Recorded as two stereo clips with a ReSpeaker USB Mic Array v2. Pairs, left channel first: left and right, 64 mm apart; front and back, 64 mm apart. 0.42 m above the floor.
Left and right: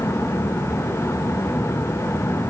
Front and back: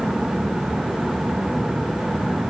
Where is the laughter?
No laughter in this recording.